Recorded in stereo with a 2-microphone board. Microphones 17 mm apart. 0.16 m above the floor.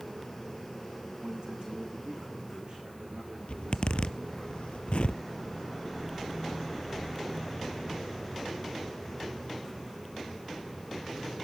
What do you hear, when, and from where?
1.2 s a man speaking: 65° right (ahead or behind), 9 m; by 4.5 s 60° right (ahead or behind), 12 m
3.5 s a zipper: 85° left, 0.5 m